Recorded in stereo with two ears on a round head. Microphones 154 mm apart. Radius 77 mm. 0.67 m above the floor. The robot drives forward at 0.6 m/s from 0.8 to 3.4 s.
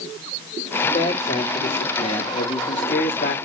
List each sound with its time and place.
0.8 s a man speaking: 30° left (ahead or behind), 3 m; by 3.4 s 50° left (ahead or behind), 1.9 m